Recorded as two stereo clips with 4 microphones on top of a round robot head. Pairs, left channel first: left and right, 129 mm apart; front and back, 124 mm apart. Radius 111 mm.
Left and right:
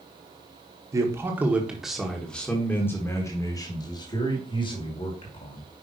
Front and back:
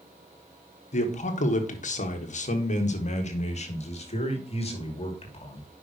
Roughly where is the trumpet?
No trumpet in this recording.